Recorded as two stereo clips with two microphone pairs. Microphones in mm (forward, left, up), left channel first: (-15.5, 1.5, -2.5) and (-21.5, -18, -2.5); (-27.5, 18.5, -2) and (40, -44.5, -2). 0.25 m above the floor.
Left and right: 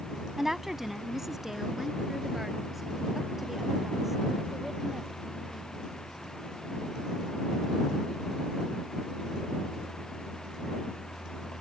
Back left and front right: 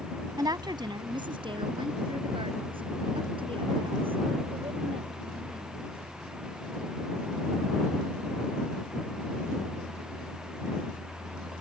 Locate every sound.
0.4 s a woman speaking: 45° right; by 5.9 s 30° right